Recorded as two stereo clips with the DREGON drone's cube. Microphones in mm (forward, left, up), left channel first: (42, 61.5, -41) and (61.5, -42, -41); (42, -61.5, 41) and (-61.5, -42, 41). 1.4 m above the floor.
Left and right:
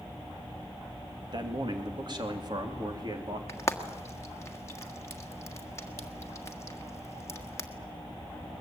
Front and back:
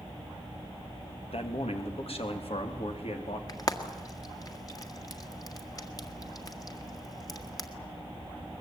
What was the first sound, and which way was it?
A man speaking, 35° right.